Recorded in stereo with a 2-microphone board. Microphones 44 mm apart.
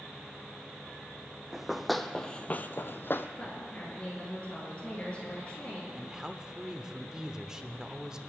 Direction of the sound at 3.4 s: 30° left (ahead or behind).